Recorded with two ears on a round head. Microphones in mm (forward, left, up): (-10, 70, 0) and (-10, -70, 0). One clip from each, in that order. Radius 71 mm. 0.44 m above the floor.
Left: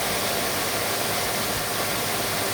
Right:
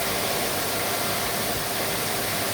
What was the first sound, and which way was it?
Only background noise.